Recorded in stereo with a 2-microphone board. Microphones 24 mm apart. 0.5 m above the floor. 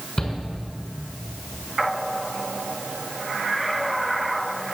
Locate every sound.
0.2 s a shout: 35° left (ahead or behind), 6 m